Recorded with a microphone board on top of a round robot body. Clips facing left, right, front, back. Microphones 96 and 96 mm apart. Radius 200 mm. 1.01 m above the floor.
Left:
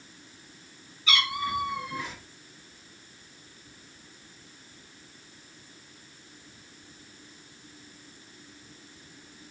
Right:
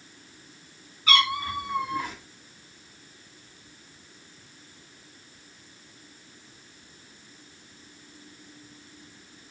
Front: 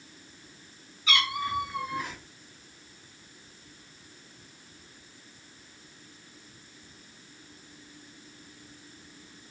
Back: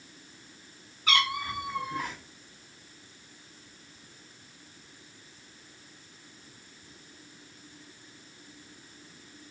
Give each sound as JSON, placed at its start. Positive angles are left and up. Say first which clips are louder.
{"t": 1.1, "sound": "a cat meowing", "louder": "right 4 dB, even", "azimuth_deg": -135, "distance_m": 2.0}